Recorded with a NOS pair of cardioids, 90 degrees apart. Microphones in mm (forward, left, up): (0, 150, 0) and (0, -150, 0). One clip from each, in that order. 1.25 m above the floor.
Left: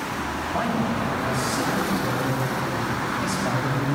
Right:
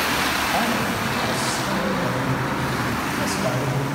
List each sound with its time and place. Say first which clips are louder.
0.5 s a man speaking: right 3 dB; 60° right, 7 m; by 3.9 s 75° right, 6.5 m